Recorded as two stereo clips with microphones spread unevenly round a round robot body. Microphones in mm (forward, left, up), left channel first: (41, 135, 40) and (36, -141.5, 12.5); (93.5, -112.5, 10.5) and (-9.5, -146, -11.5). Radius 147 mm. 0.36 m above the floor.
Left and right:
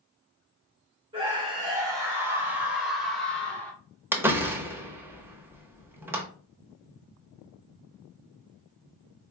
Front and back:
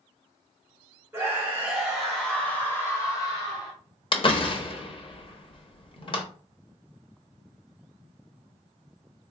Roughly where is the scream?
Behind right.